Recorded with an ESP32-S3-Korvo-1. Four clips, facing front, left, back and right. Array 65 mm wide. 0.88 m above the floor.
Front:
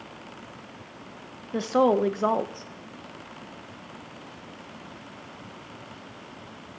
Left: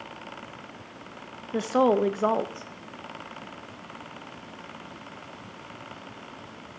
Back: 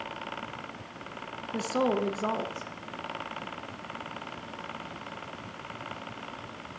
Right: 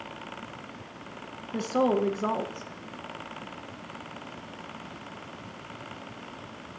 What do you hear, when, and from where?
1.5 s a woman speaking: 50° left, 0.8 m